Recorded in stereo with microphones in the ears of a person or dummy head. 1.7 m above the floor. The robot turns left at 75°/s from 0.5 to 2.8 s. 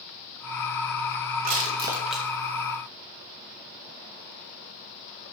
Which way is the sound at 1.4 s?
50° right (ahead or behind).